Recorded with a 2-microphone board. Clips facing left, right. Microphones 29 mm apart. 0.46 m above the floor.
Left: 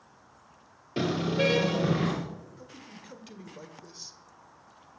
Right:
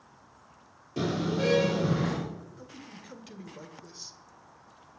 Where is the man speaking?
5° left (ahead or behind), 1.5 m.